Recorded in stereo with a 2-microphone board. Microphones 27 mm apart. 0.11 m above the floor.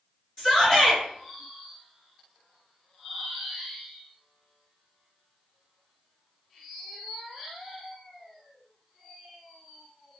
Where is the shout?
25° left (ahead or behind), 1.8 m.